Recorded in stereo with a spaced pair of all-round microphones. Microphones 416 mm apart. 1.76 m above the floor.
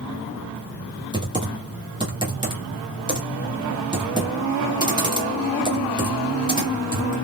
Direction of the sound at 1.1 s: 10° right (ahead or behind).